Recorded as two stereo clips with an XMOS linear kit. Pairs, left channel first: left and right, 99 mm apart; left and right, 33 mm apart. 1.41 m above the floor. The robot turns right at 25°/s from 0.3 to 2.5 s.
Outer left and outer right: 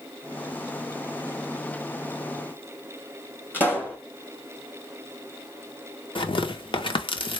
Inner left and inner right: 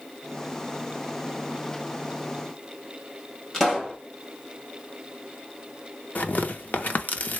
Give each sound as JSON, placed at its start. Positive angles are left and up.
{"t": 3.5, "sound": "a pop", "side_deg": 20, "distance_m": 1.6}
{"t": 6.2, "sound": "tearing paper", "side_deg": 60, "distance_m": 0.6}